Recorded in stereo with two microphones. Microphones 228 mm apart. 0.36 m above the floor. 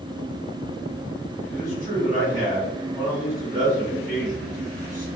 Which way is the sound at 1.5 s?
35° right (ahead or behind).